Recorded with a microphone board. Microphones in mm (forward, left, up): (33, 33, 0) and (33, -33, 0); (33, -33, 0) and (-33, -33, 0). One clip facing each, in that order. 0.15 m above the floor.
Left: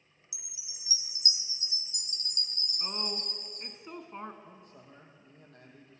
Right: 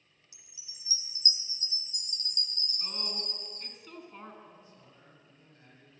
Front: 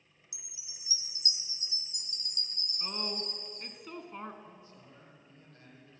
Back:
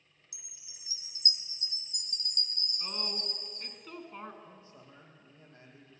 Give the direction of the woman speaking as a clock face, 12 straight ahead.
9 o'clock.